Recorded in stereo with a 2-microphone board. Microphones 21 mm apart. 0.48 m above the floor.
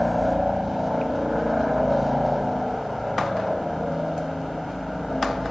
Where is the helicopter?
15° right (ahead or behind); by 5.5 s centre (ahead or behind).